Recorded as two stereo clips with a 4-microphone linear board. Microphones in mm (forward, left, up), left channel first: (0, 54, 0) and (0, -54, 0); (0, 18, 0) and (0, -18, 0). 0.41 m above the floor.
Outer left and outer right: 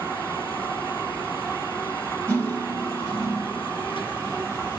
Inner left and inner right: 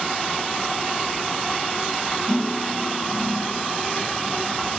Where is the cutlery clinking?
20° left (ahead or behind), 5.5 m.